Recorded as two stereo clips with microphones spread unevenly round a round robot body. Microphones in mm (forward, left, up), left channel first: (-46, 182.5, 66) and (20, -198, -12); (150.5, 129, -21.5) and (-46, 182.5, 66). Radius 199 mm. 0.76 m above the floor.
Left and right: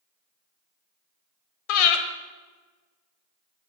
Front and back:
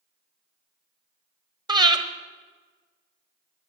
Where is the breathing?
100° left, 1.5 m.